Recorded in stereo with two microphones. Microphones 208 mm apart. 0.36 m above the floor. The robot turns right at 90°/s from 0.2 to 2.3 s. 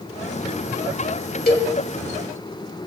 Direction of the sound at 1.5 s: 45° left (ahead or behind).